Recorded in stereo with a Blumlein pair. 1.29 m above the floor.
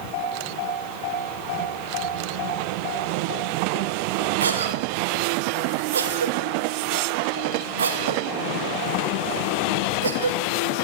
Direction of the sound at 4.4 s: 70° right.